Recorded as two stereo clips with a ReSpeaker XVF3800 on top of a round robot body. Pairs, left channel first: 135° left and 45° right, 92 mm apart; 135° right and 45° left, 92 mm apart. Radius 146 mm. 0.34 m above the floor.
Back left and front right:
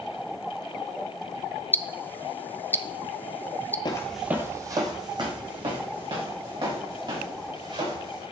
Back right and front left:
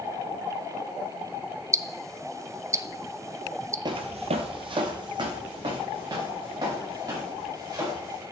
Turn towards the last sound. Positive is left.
turn(degrees=-10)